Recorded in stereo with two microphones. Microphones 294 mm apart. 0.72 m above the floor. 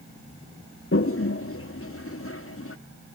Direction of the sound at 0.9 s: 50° left (ahead or behind).